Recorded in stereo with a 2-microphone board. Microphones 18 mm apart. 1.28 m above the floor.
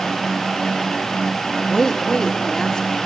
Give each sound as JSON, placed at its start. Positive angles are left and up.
{"t": 1.7, "sound": "a woman speaking", "side_deg": 40, "distance_m": 1.9}